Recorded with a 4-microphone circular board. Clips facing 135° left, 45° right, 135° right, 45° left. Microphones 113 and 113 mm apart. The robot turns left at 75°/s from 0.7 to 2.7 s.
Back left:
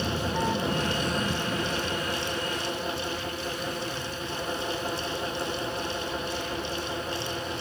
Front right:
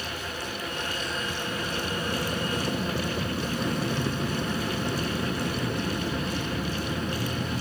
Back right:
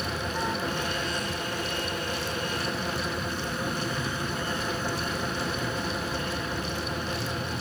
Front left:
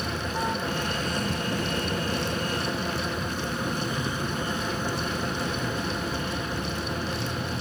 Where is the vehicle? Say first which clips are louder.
Back left 7 dB, front left 1 dB; 120° left; by 7.6 s 30° right.